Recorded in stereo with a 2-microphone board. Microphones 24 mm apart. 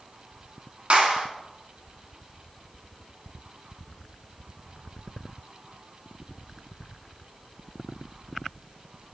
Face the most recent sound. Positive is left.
turn(degrees=-65)  # may be behind; listen again after turning